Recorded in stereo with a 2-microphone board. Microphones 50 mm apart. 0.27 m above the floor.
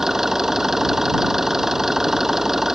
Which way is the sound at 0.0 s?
10° right (ahead or behind).